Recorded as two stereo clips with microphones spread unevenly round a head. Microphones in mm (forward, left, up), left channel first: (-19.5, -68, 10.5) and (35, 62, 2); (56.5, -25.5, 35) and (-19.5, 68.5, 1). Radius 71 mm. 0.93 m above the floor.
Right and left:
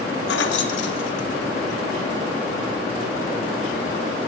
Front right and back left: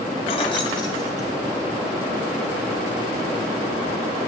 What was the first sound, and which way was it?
Keys jangling, 105° right.